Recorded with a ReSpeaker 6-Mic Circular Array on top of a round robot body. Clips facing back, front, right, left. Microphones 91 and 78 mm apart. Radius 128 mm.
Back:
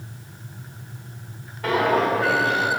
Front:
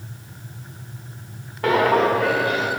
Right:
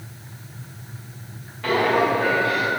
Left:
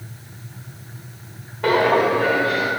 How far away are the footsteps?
About 1.9 m.